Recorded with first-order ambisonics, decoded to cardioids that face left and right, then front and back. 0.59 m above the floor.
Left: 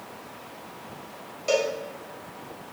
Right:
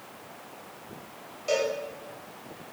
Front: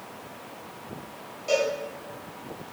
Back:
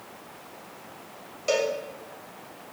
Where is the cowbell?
155° left, 1.4 m.